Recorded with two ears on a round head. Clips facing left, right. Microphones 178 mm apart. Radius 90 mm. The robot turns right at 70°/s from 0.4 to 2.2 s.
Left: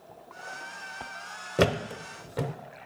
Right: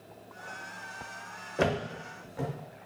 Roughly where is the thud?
Left.